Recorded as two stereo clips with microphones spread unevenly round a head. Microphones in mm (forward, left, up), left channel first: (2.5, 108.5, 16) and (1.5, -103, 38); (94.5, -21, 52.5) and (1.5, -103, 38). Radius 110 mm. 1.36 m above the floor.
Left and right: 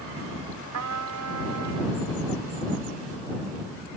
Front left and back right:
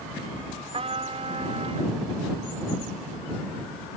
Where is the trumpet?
100° right.